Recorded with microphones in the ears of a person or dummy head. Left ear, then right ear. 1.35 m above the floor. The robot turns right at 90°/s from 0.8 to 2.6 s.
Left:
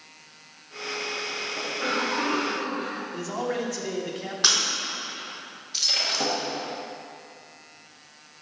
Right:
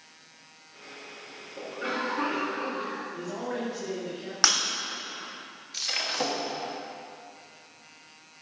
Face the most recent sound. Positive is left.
turn(degrees=-20)  # may be behind; listen again after turning